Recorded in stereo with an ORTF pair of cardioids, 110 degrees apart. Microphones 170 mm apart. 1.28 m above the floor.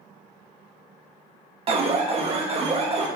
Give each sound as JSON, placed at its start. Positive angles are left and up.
{"t": 1.7, "sound": "an alarm", "azimuth_deg": -40, "distance_m": 1.1}